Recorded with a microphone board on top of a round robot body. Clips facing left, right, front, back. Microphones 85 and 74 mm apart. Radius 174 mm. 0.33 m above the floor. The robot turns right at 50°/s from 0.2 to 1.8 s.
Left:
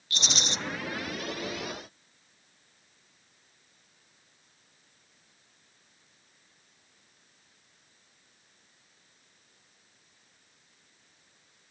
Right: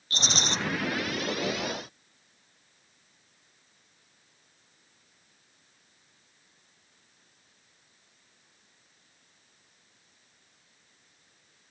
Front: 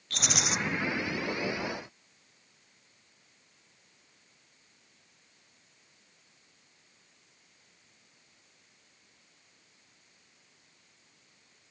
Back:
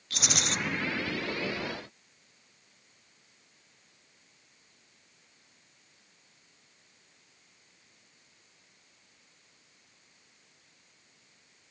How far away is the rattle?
About 0.8 m.